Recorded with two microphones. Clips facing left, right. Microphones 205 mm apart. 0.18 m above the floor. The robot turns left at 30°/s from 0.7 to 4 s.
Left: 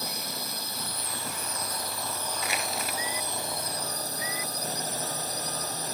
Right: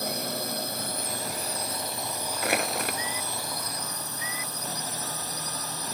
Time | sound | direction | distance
0.0 | a drone | 120° right | ?
2.4 | crushing | 65° right (ahead or behind) | ?